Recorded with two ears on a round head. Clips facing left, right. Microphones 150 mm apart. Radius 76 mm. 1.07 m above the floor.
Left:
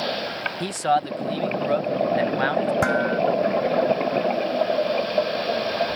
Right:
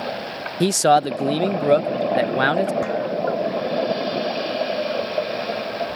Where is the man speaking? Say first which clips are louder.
Right 6 dB; 50° right (ahead or behind).